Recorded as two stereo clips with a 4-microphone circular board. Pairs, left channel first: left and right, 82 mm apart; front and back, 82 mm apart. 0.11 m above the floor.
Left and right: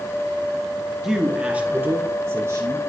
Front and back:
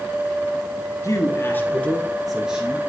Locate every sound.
1.0 s a man speaking: 5° right, 1.8 m; by 2.8 s 115° right, 1.8 m